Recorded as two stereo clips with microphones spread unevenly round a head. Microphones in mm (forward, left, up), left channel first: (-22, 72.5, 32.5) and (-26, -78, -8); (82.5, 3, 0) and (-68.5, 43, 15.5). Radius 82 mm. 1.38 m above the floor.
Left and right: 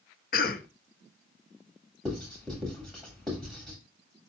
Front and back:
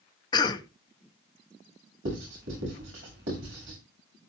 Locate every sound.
0.3 s a cough: 45° left, 1.4 m
2.0 s writing: 175° left, 7.5 m